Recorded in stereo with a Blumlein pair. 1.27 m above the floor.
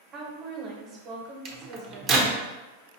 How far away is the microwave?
About 0.8 m.